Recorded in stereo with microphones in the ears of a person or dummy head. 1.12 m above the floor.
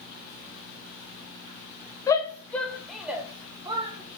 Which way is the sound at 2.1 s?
15° left (ahead or behind).